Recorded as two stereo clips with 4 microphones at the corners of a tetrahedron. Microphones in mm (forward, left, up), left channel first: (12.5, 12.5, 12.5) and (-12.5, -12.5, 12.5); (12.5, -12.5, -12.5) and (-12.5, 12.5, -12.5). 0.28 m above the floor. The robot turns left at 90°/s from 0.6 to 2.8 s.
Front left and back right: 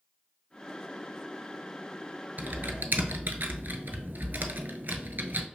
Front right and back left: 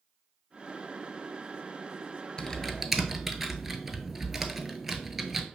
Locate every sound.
2.4 s typing on a keyboard: 105° right, 0.7 m; by 5.5 s 145° right, 0.7 m